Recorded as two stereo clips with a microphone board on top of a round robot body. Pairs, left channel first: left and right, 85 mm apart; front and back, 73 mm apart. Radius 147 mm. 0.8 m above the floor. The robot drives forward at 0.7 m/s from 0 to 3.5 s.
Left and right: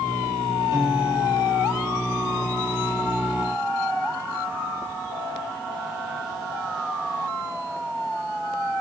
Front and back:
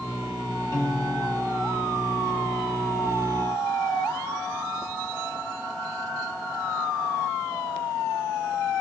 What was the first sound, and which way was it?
A piano, 40° right.